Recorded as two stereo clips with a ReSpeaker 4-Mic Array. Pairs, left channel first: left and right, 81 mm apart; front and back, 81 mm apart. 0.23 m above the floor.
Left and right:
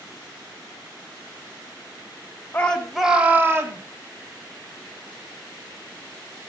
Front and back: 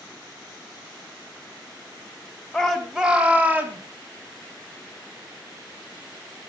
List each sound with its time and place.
2.5 s a shout: 75° left, 1.4 m; by 3.8 s 125° right, 2.0 m